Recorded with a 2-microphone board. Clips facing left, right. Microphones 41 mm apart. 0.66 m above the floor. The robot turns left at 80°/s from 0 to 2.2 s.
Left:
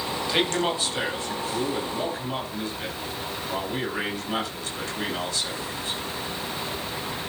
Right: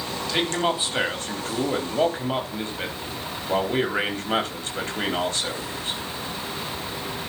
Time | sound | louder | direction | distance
0.3 | a man speaking | right 1 dB | 15° left | 4 m